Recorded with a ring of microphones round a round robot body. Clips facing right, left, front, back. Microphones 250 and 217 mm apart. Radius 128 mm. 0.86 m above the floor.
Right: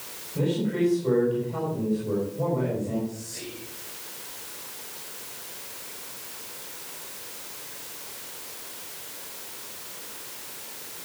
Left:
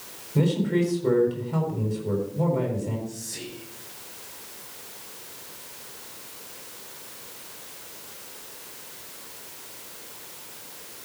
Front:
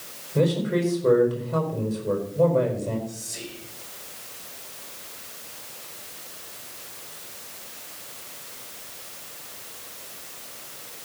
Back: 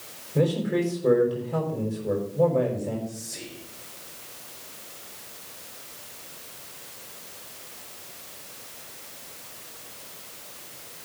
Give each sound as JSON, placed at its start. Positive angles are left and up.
{"t": 0.3, "sound": "a man speaking", "azimuth_deg": 95, "distance_m": 5.0}
{"t": 3.1, "sound": "whispering", "azimuth_deg": 120, "distance_m": 5.0}